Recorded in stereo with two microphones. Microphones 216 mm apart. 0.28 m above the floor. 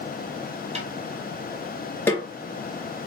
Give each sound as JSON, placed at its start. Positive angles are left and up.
{"t": 0.8, "sound": "a snare drum", "side_deg": -30, "distance_m": 1.3}
{"t": 2.1, "sound": "a snare drum", "side_deg": 10, "distance_m": 2.0}